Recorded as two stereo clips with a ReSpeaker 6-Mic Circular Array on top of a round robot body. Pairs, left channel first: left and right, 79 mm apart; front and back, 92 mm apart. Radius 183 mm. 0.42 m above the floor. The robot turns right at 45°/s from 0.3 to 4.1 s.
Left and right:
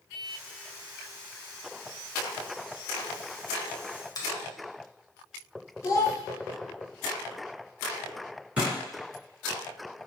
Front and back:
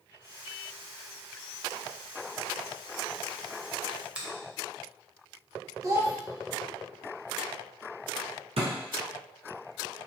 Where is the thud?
165° right, 1.6 m.